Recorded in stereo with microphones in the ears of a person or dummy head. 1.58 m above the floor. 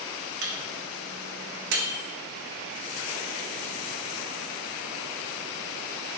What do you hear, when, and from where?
0.4 s a microwave: 65° right (ahead or behind), 0.6 m